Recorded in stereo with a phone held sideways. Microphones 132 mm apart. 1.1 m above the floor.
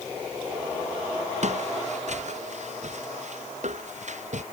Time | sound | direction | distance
1.4 | footsteps | 60° right (ahead or behind) | ?